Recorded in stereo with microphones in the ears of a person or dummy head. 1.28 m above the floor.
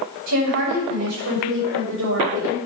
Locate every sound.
0.3 s a woman speaking: 80° right, 6.5 m